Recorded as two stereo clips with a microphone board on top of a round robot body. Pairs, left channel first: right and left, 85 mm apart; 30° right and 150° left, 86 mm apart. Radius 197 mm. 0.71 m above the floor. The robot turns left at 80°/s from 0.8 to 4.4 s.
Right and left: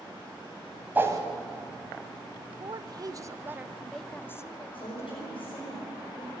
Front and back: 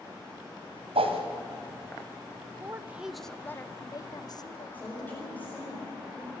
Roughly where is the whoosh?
Behind.